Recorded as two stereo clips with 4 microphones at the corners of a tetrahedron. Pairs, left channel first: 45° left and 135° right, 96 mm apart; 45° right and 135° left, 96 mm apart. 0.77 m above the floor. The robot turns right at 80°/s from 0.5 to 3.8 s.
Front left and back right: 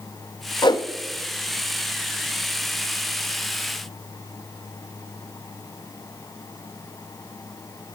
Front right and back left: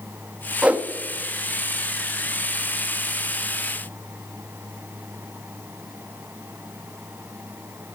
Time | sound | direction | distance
0.6 | a whoosh | 55° left | 0.8 m